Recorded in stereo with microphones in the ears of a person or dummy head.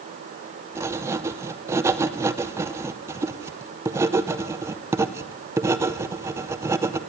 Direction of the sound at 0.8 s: 15° right (ahead or behind).